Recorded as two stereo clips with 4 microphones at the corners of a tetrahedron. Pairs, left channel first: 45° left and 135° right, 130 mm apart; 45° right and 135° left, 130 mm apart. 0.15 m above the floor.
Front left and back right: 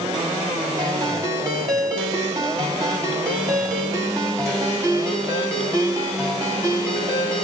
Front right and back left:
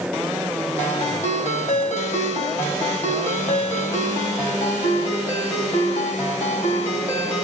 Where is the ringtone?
70° right, 3.5 m.